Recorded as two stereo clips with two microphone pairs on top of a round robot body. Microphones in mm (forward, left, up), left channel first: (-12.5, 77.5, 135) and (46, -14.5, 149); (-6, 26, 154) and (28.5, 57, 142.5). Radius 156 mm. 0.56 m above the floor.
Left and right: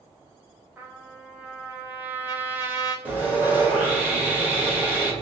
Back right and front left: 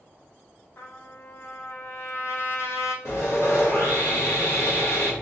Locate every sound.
0.8 s a trumpet: 130° right, 0.8 m
3.0 s sawing: 135° right, 1.7 m